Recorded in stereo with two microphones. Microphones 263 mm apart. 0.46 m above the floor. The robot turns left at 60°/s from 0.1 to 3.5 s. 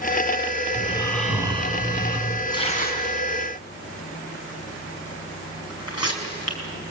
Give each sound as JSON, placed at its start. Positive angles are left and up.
{"t": 0.8, "sound": "snoring", "azimuth_deg": 30, "distance_m": 4.5}
{"t": 2.5, "sound": "tearing paper", "side_deg": 15, "distance_m": 4.5}